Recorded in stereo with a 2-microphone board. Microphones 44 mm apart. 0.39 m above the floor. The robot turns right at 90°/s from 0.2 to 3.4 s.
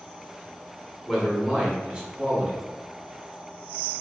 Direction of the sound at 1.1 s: 5° left (ahead or behind).